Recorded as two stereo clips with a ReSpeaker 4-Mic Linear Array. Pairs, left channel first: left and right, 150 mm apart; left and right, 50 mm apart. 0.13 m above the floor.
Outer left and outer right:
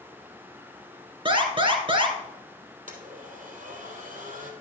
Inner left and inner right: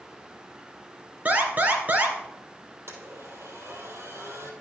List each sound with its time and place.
1.2 s an alarm: 35° right (ahead or behind), 2 m
2.9 s a blender: 70° right (ahead or behind), 3 m